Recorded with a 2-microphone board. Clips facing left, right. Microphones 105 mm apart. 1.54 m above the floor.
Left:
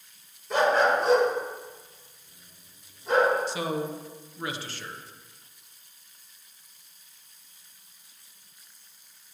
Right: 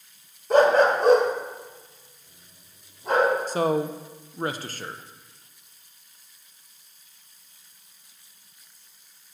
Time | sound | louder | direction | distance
0.5 | a dog barking | right 5 dB | 50° right (ahead or behind) | 1.6 m
3.5 | a man speaking | right 6 dB | 45° right (ahead or behind) | 0.7 m